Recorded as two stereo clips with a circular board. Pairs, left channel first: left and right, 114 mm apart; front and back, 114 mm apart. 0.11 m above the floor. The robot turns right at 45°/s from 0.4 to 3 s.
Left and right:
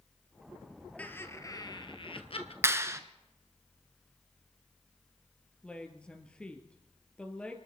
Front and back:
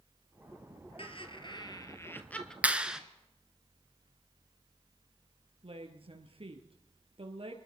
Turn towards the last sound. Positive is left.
turn(degrees=170)